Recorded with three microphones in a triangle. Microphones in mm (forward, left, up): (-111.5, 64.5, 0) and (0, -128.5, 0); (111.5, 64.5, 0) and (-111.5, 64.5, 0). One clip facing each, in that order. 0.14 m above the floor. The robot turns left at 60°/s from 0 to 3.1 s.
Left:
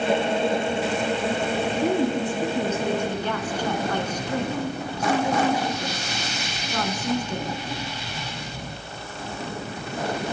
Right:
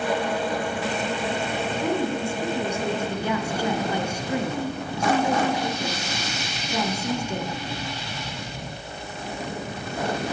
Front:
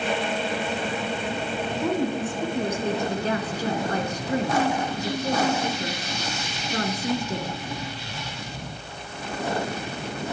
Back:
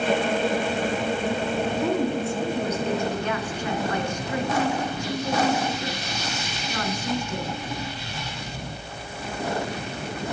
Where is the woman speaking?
90° left, 1.9 m; by 7.5 s 15° left, 1.9 m.